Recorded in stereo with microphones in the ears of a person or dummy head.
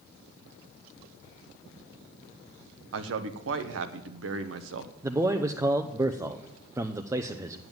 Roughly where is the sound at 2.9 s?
Right.